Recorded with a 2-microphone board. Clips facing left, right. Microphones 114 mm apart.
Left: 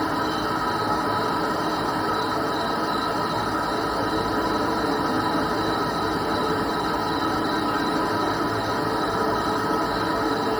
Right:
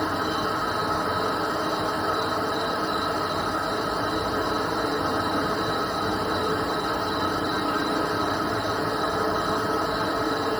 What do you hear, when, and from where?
0.0 s an insect: 45° left (ahead or behind), 4 m